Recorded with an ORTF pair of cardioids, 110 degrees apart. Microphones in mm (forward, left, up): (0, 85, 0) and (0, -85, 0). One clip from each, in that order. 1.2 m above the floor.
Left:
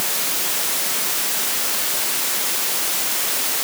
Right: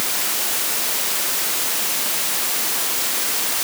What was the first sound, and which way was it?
Only background noise.